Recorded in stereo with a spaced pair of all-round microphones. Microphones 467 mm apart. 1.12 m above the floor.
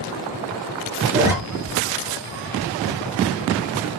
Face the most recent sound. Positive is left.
turn(degrees=-5)  # may be behind; listen again after turning